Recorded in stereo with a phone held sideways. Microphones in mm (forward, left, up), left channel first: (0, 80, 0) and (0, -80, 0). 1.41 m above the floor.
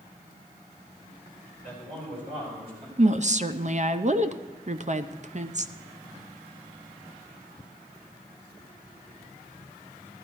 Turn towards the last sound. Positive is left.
turn(degrees=-50)  # may be behind; listen again after turning